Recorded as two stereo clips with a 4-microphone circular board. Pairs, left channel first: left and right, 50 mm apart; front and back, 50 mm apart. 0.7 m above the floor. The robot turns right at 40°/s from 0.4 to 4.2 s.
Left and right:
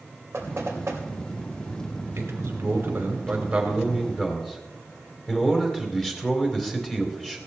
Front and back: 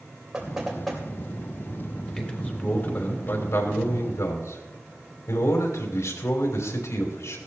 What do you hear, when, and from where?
0.3 s knocking: 105° right, 2.5 m; by 1.0 s 80° right, 2.5 m
2.2 s a man speaking: 70° right, 3 m; by 7.4 s 10° left, 3 m